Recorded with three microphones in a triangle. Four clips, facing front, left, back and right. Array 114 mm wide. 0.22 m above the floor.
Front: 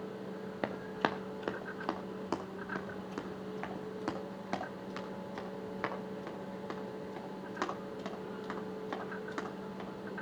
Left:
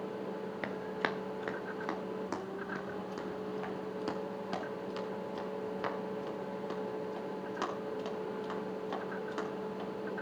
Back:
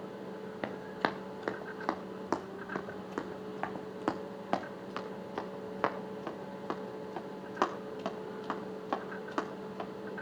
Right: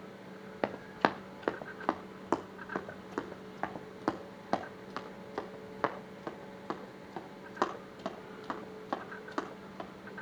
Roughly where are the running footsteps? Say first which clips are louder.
Right 7 dB, even; right.